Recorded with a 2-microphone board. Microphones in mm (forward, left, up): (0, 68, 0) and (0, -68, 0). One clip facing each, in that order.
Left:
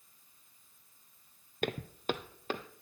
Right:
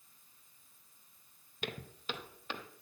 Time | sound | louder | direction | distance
1.6 | footsteps | left 8 dB | 50° left (ahead or behind) | 0.6 m